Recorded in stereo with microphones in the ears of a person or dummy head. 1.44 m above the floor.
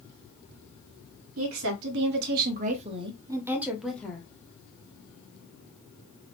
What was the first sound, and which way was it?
A woman speaking, 75° right (ahead or behind).